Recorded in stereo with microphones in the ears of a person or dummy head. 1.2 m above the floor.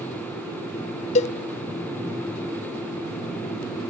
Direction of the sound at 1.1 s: 40° left (ahead or behind).